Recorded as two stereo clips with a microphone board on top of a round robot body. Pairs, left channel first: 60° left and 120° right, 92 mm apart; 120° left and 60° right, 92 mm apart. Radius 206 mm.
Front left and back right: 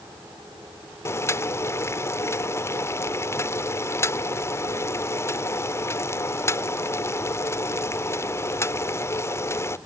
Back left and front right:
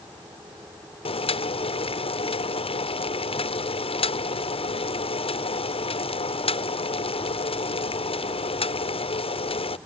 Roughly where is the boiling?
Behind left.